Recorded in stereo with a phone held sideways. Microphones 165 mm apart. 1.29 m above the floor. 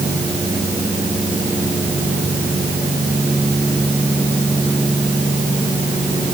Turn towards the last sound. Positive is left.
No sound to turn to.